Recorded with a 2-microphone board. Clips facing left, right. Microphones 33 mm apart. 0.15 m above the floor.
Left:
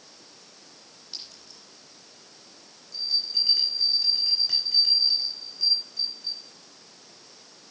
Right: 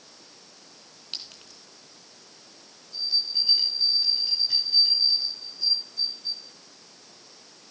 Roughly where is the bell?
Left.